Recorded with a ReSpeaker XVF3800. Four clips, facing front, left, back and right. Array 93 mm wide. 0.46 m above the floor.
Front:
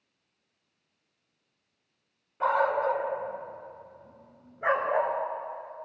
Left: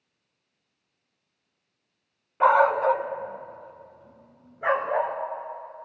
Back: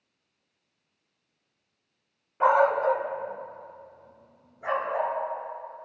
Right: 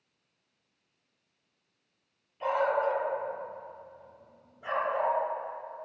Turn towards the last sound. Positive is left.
turn(degrees=45)